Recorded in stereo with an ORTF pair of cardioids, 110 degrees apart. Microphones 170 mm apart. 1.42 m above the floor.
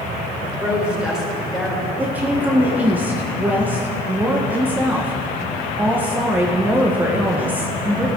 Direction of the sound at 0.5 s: 10° right.